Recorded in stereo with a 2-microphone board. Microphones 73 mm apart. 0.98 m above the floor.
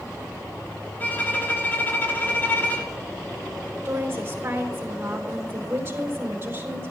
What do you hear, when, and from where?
1.0 s a violin: 25° left (ahead or behind), 3 m
3.9 s a woman speaking: 30° right (ahead or behind), 4 m